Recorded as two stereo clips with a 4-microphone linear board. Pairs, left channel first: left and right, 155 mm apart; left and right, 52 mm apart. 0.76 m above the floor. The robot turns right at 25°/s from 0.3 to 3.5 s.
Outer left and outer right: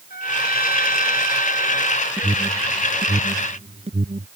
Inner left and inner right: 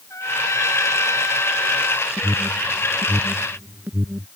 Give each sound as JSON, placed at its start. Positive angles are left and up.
{"t": 0.1, "sound": "a trumpet", "azimuth_deg": 80}
{"t": 2.2, "sound": "an alarm", "side_deg": -15}